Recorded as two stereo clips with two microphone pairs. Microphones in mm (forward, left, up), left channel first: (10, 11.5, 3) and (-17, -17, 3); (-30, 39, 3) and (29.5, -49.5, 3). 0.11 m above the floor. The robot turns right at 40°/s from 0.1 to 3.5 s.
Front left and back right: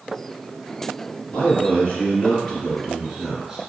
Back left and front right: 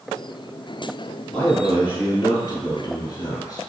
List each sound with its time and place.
1.3 s a man speaking: 50° left, 1.4 m; by 3.6 s 135° left, 1.4 m